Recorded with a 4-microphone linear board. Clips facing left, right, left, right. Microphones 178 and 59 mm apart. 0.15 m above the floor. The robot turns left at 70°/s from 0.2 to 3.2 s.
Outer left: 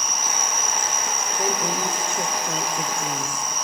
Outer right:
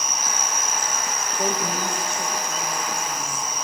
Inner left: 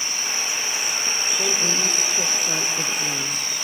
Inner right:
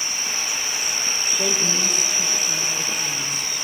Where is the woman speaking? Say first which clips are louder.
Even, inner right 1 dB; 175° left, 3 m; by 3.5 s 50° left, 3 m.